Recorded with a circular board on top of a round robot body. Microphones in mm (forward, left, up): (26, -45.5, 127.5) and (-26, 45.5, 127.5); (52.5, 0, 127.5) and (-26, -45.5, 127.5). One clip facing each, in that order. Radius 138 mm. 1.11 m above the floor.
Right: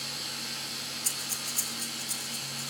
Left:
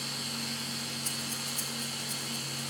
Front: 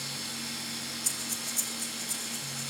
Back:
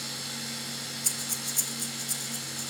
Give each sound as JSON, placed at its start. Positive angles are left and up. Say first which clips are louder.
{"t": 0.0, "sound": "running water", "louder": "left 3 dB, back 1 dB", "azimuth_deg": 70, "distance_m": 8.5}
{"t": 1.0, "sound": "breathing", "louder": "left 3 dB, back 1 dB", "azimuth_deg": -115, "distance_m": 2.0}